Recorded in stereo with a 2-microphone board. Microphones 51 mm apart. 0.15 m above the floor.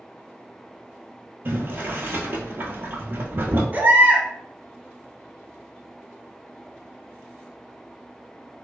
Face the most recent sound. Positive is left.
turn(degrees=-40)  # may be behind; listen again after turning